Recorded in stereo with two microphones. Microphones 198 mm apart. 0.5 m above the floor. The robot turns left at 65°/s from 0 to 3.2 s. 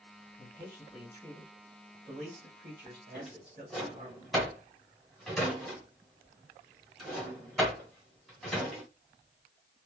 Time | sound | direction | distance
0.4 | a man speaking | 65° left | 2 m
3.1 | a drawer | 5° right (ahead or behind) | 2 m